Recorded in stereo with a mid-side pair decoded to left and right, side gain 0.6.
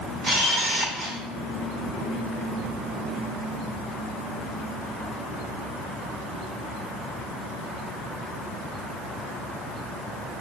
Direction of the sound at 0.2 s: 35° right.